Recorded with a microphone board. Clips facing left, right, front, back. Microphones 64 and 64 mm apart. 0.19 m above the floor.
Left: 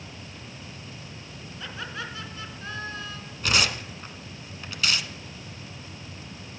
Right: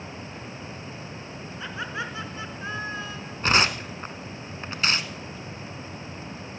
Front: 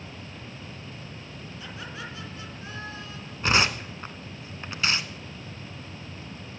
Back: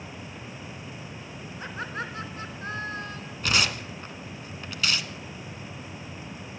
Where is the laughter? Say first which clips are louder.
Right 3 dB, back 6 dB; 155° right, 2.5 m.